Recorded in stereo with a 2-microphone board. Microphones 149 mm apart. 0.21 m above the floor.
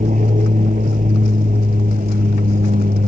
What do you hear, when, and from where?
0.0 s an aircraft: 50° right (ahead or behind); by 3.1 s 65° right (ahead or behind)